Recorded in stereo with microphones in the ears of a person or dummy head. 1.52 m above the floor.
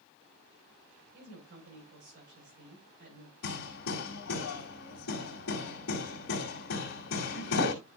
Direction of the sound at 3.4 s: 60° left (ahead or behind).